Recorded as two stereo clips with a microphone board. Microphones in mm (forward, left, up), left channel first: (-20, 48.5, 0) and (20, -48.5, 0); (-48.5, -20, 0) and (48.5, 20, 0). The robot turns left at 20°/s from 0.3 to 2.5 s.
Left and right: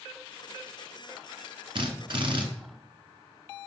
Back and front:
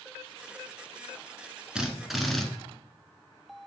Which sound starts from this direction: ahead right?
A drill, at 1.8 s.